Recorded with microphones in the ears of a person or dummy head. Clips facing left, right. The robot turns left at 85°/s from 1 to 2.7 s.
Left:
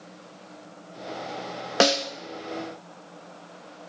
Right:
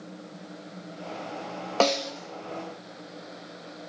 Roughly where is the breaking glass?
I don't hear breaking glass.